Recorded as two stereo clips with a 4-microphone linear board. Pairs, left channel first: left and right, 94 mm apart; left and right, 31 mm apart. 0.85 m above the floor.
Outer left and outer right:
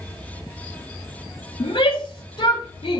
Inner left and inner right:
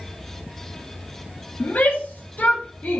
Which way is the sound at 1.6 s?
70° left (ahead or behind).